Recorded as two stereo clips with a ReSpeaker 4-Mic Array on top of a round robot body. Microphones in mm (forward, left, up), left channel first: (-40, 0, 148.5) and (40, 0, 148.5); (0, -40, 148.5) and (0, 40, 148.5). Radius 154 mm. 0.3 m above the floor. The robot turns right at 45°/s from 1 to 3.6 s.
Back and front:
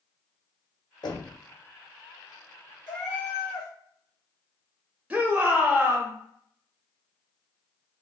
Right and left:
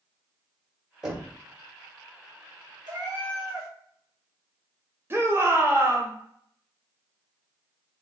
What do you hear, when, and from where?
1.0 s knocking: 170° left, 1.5 m; by 1.4 s 175° right, 1.5 m
2.9 s a cat meowing: 110° left, 1.7 m; by 3.7 s 140° left, 1.7 m
5.1 s a shout: 55° left, 1.2 m